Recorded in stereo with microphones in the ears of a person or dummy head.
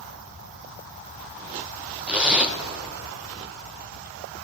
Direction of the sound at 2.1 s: 10° right (ahead or behind).